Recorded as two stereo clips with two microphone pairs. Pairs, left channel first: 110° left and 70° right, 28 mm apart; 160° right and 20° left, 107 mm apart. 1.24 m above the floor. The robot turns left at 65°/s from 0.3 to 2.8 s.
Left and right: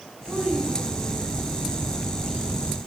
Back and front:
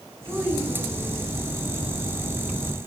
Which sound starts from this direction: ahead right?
A child speaking, at 0.2 s.